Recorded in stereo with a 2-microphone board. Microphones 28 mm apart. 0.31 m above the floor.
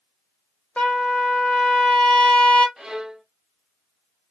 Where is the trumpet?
40° left (ahead or behind), 1.4 m.